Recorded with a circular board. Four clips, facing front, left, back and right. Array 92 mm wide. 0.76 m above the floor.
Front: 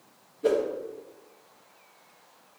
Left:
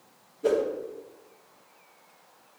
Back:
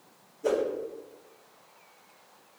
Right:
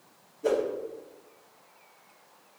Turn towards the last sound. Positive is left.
turn(degrees=25)